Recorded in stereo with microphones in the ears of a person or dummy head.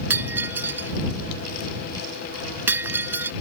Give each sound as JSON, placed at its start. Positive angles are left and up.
{"t": 0.1, "sound": "breaking glass", "side_deg": -10}